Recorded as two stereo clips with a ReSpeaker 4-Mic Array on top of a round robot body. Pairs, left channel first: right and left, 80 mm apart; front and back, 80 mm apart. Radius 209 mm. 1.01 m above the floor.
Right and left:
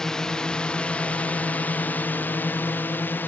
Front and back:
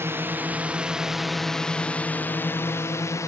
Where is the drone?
165° right; by 3.3 s 30° right.